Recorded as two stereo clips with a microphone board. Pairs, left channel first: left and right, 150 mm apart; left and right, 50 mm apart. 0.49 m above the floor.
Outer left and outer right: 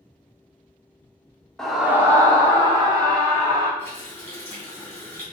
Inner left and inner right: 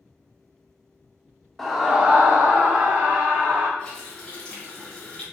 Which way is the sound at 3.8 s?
15° left (ahead or behind).